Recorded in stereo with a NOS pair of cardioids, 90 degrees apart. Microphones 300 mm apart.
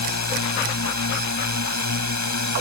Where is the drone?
65° left; by 2.6 s 70° left.